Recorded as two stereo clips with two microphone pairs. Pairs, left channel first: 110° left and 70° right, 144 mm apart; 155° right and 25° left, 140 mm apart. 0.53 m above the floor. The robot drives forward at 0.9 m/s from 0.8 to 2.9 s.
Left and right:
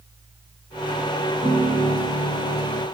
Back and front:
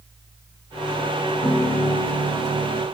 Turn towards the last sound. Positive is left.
turn(degrees=-110)